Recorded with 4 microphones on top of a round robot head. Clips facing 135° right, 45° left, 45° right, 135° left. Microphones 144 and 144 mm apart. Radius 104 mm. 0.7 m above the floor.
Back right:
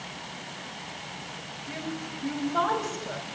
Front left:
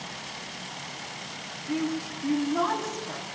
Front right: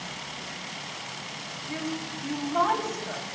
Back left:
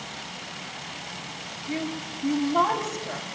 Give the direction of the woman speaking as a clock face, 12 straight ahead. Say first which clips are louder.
Front left 7 dB, back left 2 dB; 5 o'clock.